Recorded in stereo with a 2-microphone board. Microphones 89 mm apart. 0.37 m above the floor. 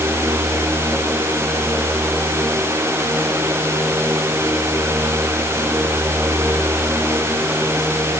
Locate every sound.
Only background noise.